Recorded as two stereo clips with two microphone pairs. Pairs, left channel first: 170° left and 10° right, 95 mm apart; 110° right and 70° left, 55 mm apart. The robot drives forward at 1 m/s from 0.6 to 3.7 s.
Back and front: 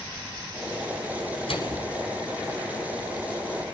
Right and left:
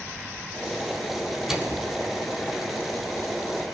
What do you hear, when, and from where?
1.5 s a microwave: 145° left, 5.5 m